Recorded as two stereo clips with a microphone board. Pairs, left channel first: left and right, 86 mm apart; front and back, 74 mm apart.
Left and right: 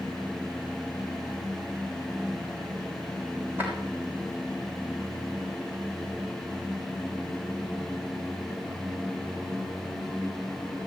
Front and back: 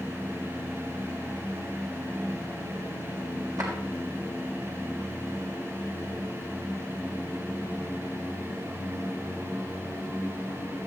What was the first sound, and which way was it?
A drawer, 155° right.